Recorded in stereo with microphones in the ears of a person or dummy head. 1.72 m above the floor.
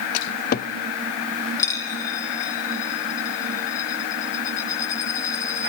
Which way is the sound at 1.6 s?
15° left (ahead or behind).